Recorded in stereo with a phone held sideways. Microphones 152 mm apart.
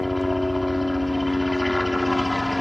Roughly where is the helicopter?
Centre.